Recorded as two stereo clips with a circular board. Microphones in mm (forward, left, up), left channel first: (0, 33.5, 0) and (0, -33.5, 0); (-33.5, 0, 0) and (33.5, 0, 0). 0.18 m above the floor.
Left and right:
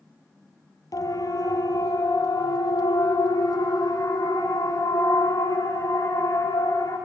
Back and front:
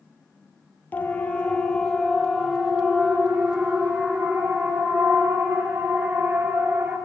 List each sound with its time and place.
0.9 s a siren: 120° left, 3 m; by 7.0 s 60° left, 9.5 m